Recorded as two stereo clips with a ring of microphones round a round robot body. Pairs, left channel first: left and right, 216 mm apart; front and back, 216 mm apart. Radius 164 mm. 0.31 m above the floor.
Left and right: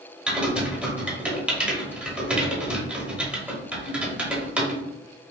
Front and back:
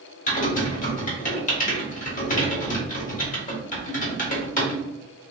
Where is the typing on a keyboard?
10° right, 1.0 m.